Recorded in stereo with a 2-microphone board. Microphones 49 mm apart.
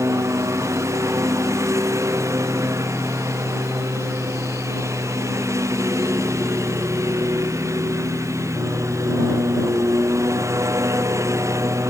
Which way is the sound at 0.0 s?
85° right.